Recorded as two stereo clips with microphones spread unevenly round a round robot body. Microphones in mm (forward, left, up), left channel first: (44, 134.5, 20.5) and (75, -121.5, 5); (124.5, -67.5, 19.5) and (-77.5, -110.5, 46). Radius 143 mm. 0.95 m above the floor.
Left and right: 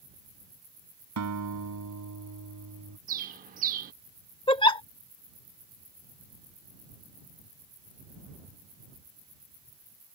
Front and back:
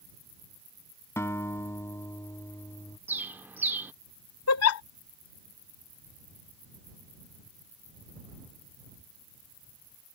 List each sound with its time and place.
1.2 s a guitar: 65° right
3.1 s a bird: 110° right
4.5 s a giggle: 25° left